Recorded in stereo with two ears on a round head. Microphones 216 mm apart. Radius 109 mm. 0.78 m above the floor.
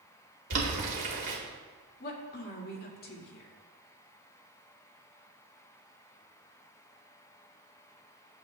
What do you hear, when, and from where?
0.5 s boiling: 50° right (ahead or behind), 2.5 m
2.0 s a woman speaking: 40° left (ahead or behind), 1.9 m